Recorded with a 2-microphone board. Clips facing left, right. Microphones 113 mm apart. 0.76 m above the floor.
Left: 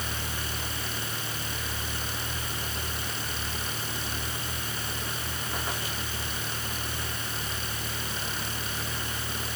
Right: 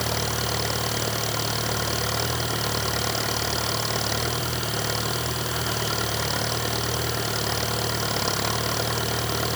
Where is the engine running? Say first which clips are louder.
Right 9 dB; 85° right.